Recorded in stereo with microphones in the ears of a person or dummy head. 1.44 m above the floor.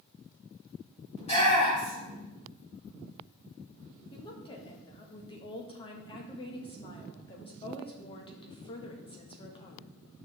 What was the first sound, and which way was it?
A shout, 40° left (ahead or behind).